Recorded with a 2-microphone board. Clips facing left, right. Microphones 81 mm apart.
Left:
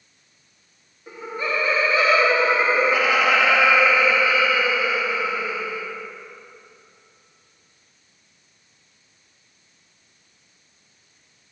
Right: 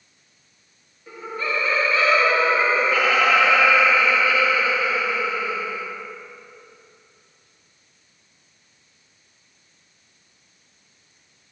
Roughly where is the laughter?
Centre.